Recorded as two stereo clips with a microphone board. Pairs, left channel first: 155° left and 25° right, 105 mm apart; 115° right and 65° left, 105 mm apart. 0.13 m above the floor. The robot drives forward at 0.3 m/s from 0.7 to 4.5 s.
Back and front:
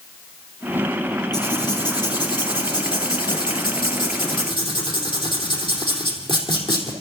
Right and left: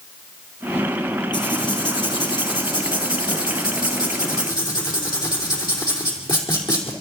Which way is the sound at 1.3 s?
155° right.